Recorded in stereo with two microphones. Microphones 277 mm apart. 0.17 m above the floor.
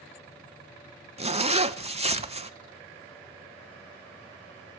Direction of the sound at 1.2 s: 20° right (ahead or behind).